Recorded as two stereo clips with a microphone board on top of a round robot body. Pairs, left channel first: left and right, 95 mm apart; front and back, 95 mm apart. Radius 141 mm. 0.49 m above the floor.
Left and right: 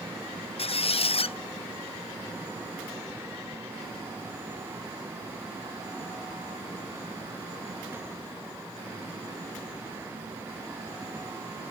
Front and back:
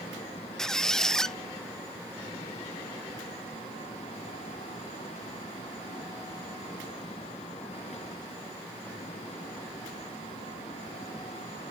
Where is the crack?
No crack in this recording.